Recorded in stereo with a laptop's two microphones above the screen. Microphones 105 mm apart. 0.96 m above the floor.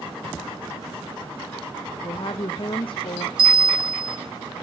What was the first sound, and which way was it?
A woman speaking, 55° left (ahead or behind).